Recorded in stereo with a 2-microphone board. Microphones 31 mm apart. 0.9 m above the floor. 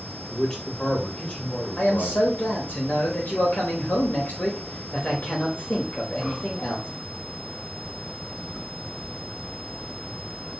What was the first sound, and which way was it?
A man speaking, 30° left (ahead or behind).